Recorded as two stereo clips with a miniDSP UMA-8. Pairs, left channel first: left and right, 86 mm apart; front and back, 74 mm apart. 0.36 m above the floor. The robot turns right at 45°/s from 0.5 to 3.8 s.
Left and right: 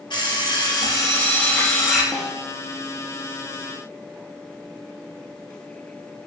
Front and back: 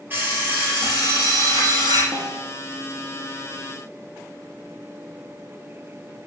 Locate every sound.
0.1 s an alarm clock: 120° left, 3.5 m; by 2.0 s 175° right, 3.5 m
2.1 s a snare drum: straight behind, 1.2 m; by 2.5 s 165° right, 1.2 m